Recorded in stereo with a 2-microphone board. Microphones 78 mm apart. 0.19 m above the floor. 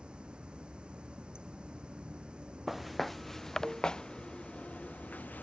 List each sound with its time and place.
0.0 s running water: 15° right (ahead or behind)
2.7 s footsteps: centre (ahead or behind); by 5.4 s 20° left (ahead or behind)